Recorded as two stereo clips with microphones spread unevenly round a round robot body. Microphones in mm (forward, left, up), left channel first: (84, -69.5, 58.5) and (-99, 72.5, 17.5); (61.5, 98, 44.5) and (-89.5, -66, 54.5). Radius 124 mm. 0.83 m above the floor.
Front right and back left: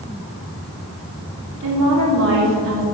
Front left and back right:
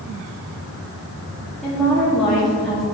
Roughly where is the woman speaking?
Behind left.